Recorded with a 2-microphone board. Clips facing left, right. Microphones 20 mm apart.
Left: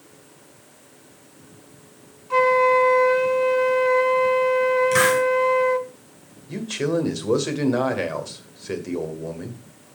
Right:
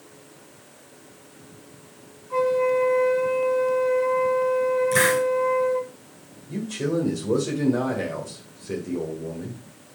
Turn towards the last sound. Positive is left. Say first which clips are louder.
# left 2 dB
turn(degrees=45)  # may be behind; listen again after turning